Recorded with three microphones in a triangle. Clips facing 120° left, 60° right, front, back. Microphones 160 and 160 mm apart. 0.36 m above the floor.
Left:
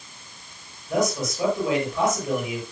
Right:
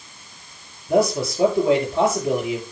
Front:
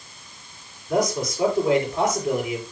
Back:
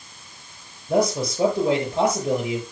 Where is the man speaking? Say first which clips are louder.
Right 5 dB, back 2 dB; 120° right, 7 m.